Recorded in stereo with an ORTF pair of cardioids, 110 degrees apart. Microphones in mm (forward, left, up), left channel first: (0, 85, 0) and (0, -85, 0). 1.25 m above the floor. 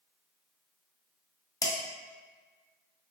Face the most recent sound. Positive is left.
turn(degrees=20)